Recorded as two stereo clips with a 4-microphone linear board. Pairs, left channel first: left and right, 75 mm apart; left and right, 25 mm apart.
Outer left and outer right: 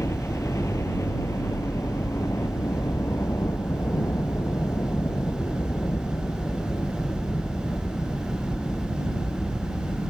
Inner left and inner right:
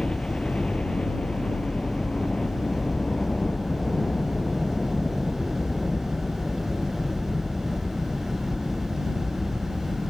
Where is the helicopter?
40° left (ahead or behind).